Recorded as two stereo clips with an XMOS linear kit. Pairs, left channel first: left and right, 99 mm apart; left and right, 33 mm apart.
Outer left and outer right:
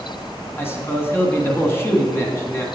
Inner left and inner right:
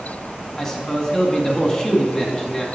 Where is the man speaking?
25° left (ahead or behind), 1.3 m.